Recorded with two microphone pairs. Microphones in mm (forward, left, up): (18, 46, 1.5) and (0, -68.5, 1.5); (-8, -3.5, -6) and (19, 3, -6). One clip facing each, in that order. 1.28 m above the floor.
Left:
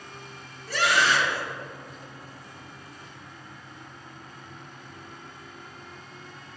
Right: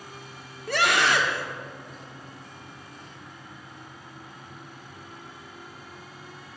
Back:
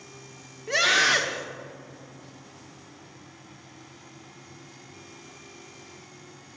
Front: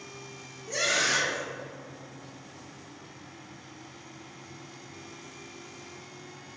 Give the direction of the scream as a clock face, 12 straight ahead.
4 o'clock.